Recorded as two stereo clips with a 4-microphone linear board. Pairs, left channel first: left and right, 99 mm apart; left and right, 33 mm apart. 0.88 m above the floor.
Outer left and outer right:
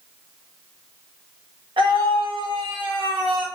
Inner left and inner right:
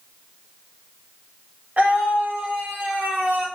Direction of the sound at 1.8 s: 60° right (ahead or behind).